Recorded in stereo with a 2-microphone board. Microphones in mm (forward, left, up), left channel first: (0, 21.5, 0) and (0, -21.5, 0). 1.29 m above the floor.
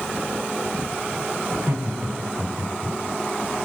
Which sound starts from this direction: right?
Laughter, at 1.5 s.